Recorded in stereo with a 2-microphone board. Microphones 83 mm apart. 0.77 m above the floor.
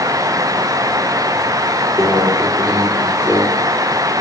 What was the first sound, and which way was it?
A microwave, 35° right (ahead or behind).